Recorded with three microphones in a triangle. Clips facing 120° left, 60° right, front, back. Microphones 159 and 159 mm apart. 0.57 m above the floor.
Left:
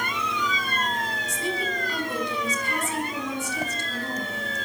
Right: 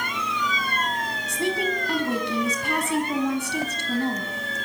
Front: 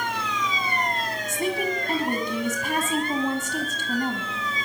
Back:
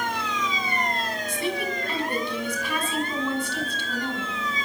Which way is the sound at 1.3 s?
40° right.